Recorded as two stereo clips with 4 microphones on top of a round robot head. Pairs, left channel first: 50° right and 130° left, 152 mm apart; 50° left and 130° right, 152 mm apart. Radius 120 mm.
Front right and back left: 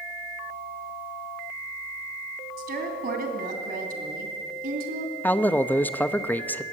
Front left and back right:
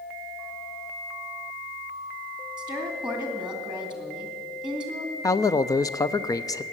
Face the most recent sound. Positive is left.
turn(degrees=15)